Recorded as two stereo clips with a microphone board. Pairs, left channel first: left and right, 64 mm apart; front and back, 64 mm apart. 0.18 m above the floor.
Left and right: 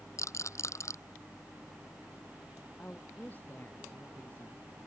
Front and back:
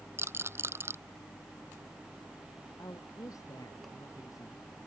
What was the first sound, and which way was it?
A rattle, 130° left.